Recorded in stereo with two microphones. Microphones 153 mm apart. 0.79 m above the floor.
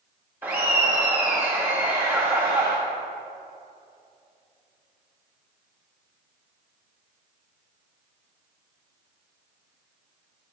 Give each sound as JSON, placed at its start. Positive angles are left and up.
{"t": 0.4, "sound": "laughter", "side_deg": -10, "distance_m": 0.9}